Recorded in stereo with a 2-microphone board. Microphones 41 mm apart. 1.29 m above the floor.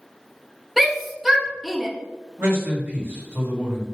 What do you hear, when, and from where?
0.8 s a shout: 5° right (ahead or behind), 0.7 m
2.4 s a man speaking: 75° right (ahead or behind), 2.0 m